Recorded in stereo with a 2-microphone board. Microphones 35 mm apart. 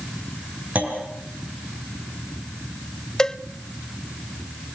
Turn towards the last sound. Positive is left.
turn(degrees=20)  # may be behind; listen again after turning